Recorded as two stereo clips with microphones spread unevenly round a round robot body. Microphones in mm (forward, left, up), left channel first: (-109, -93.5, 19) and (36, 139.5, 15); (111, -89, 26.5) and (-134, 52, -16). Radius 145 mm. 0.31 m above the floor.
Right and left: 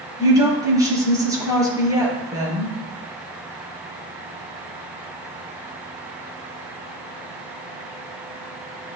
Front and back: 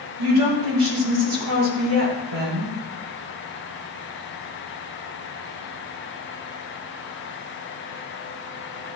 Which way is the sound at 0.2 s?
135° left.